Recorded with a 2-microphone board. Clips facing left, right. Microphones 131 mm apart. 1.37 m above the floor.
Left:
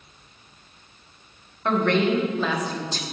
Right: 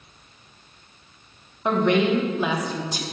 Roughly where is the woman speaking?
Centre.